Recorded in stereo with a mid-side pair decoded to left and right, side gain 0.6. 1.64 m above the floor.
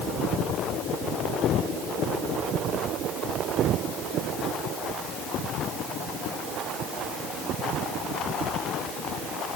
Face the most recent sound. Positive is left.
No sound to turn to.